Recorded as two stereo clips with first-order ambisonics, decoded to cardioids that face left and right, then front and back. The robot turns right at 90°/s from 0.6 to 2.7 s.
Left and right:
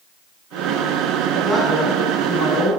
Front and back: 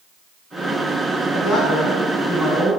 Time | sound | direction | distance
1.3 | a man speaking | 30° right | 1.3 m